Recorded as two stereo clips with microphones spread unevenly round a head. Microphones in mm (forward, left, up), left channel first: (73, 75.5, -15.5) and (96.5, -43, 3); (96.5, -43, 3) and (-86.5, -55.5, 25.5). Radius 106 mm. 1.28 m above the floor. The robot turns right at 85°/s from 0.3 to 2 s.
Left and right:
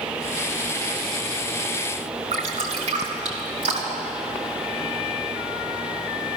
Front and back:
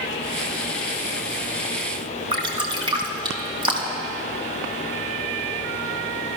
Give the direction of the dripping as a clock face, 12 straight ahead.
4 o'clock.